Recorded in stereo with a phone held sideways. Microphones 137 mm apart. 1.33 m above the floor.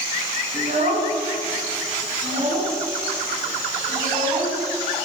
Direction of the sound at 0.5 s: 55° right (ahead or behind).